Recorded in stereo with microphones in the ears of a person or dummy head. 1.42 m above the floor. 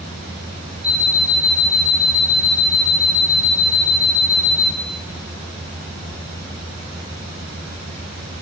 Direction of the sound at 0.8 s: 45° right (ahead or behind).